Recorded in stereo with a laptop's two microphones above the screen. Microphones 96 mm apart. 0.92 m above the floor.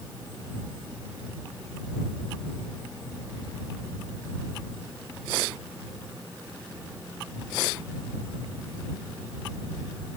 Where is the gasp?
No gasp in this recording.